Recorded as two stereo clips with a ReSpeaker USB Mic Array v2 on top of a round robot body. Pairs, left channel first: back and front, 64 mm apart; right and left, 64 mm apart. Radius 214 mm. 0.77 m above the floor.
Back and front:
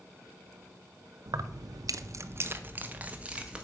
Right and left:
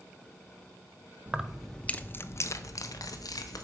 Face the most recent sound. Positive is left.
turn(degrees=-75)